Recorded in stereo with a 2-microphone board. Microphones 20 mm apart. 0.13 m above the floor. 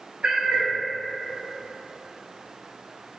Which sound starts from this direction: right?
A cat meowing, at 0.2 s.